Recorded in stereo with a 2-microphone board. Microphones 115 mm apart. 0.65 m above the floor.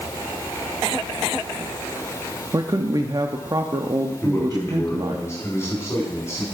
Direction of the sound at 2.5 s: 35° right (ahead or behind).